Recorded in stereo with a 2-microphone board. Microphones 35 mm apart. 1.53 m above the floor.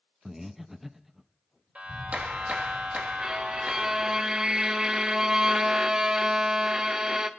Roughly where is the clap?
Right.